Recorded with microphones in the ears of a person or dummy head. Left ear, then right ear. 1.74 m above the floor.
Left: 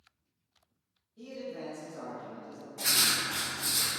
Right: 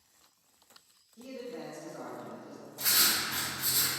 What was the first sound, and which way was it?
A man speaking, 30° right (ahead or behind).